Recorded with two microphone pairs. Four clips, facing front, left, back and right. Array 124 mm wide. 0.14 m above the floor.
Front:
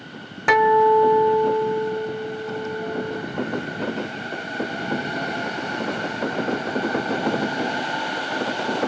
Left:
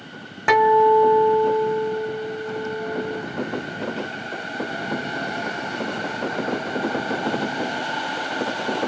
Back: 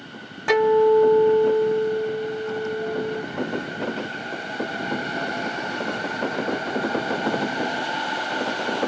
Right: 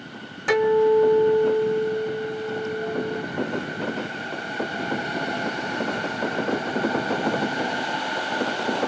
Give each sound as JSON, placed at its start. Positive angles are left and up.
{"t": 0.5, "sound": "a guitar", "azimuth_deg": 50, "distance_m": 2.5}